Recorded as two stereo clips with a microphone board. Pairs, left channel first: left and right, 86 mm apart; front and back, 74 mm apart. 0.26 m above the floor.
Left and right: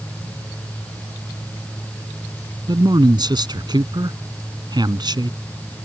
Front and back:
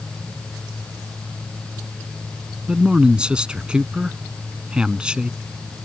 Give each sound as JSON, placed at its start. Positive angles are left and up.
{"t": 2.7, "sound": "a man speaking", "azimuth_deg": -105}